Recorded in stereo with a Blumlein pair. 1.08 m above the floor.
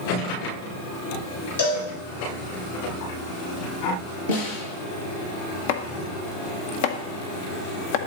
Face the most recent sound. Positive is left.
turn(degrees=50)